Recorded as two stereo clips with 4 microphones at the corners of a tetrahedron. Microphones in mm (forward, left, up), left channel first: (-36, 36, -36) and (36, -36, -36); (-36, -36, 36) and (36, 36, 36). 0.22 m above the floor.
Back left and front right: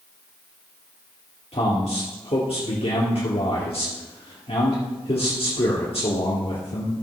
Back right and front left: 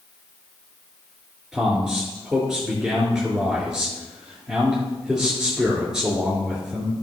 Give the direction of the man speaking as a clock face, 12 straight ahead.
8 o'clock.